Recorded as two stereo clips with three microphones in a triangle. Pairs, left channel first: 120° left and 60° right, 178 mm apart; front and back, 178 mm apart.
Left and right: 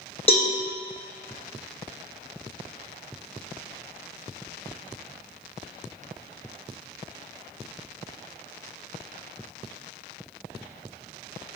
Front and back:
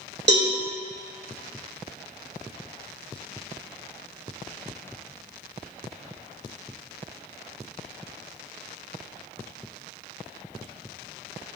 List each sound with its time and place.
0.3 s a cowbell: 175° left, 1.6 m